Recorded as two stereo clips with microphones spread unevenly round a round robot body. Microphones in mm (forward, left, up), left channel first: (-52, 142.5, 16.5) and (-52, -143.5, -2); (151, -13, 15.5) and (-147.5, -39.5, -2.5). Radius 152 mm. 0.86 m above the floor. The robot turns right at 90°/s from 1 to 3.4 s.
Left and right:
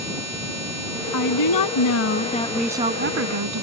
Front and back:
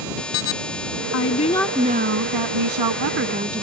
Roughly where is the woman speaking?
Ahead left.